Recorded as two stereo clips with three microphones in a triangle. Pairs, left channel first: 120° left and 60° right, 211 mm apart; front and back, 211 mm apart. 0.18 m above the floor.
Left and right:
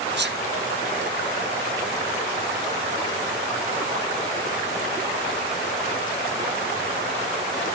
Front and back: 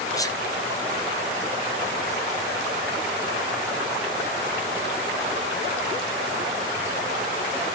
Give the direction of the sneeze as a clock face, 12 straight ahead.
2 o'clock.